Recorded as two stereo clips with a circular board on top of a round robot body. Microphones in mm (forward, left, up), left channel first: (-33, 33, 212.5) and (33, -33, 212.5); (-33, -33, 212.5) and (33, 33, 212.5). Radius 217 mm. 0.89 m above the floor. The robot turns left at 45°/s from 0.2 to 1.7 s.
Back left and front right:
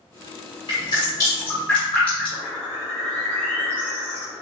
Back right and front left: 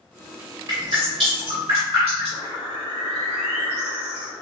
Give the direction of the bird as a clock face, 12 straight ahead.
5 o'clock.